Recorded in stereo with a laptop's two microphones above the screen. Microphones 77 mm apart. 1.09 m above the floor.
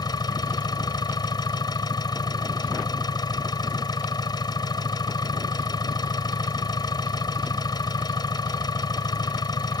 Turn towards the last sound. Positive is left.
turn(degrees=70)  # may be behind; listen again after turning